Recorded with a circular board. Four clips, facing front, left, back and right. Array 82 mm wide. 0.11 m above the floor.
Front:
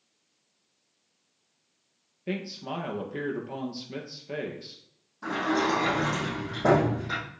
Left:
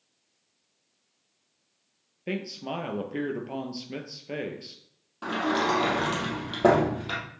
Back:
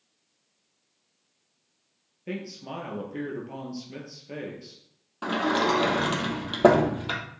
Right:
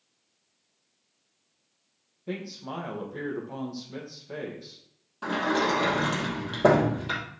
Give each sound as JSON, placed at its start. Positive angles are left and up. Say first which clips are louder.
{"t": 2.3, "sound": "a man speaking", "louder": "left 3 dB, front 2 dB", "azimuth_deg": 80, "distance_m": 2.5}
{"t": 5.2, "sound": "a sliding door", "louder": "even, back 2 dB", "azimuth_deg": 170, "distance_m": 3.0}